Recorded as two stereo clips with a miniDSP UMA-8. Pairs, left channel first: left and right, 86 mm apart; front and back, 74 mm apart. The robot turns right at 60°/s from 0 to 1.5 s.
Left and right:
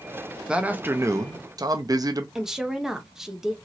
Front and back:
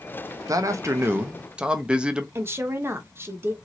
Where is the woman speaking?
170° right, 0.6 m.